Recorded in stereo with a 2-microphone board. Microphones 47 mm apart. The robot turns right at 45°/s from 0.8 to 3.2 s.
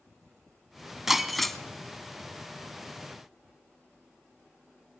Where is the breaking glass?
5° right (ahead or behind), 0.9 m; by 1.6 s 10° left (ahead or behind), 0.9 m.